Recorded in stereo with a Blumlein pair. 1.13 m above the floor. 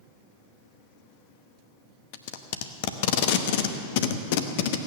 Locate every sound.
2.1 s tape being pulled: 50° left, 1.0 m